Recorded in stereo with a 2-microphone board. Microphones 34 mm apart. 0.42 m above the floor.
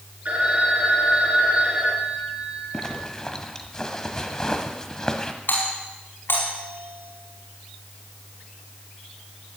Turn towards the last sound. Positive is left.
turn(degrees=70)  # may be behind; listen again after turning